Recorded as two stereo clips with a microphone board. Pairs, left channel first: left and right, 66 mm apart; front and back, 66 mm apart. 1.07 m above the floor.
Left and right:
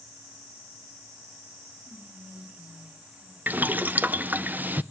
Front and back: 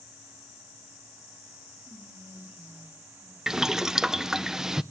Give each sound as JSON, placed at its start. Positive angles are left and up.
{"t": 1.9, "sound": "whispering", "azimuth_deg": -150, "distance_m": 6.5}
{"t": 3.5, "sound": "boiling", "azimuth_deg": -105, "distance_m": 0.5}